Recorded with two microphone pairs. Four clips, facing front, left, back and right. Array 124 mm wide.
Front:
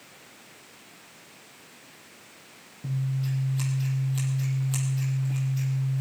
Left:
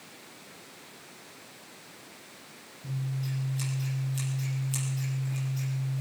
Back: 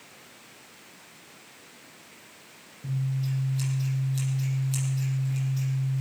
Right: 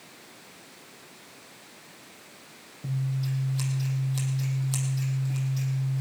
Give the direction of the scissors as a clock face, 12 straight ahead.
2 o'clock.